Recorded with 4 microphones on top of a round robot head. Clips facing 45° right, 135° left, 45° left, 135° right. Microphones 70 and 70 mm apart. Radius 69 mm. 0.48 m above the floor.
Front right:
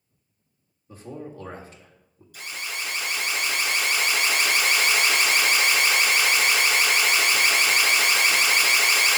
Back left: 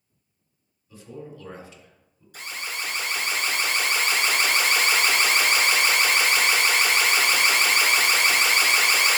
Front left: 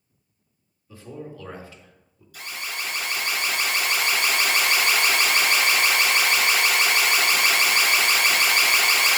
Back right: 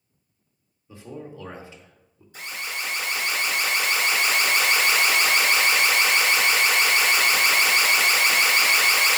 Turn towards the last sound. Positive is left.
turn(degrees=170)